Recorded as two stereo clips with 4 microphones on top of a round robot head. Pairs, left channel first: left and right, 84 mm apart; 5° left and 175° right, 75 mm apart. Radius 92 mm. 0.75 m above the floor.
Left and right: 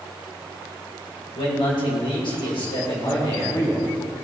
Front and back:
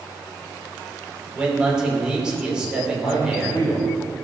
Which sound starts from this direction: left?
A man speaking, at 1.4 s.